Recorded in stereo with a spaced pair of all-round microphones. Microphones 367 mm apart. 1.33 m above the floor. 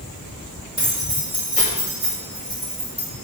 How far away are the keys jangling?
About 4 m.